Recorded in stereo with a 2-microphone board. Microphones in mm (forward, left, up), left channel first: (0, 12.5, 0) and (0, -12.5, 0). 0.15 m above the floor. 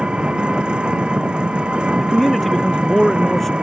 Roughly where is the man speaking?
Centre.